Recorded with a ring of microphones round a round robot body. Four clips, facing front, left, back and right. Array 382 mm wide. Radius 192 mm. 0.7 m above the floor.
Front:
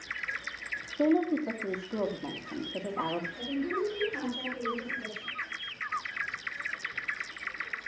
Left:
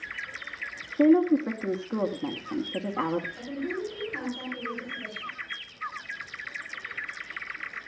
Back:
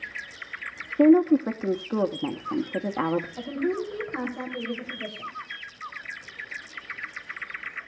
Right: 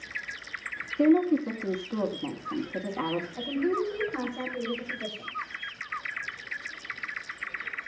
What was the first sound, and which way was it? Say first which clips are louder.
A woman speaking: left 2 dB, back 9 dB; 165° left.